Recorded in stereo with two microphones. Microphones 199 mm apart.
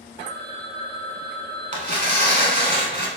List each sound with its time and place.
0.2 s a phone ringing: 55° right (ahead or behind), 1.8 m
1.7 s tearing paper: 40° right (ahead or behind), 0.7 m